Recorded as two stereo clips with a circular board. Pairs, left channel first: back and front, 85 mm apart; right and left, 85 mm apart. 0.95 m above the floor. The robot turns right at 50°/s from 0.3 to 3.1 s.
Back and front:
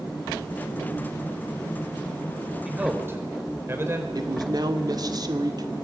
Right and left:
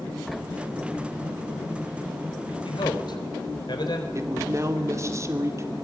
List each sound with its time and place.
2.6 s a man speaking: 80° right, 4 m; by 4.0 s 60° right, 4 m
4.2 s a man speaking: 35° left, 2.5 m